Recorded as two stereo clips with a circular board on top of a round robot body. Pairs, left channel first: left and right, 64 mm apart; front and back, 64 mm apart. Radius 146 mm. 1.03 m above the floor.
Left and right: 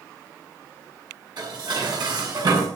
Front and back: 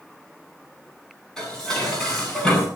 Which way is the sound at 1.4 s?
80° right.